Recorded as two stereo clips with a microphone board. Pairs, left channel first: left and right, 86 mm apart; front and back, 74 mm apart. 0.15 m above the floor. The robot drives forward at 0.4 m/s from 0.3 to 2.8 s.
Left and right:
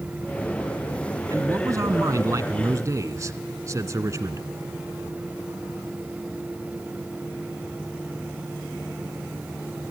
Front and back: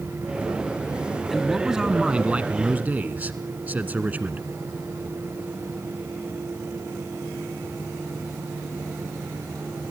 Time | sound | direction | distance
1.3 | a man speaking | 95° right | 1.5 m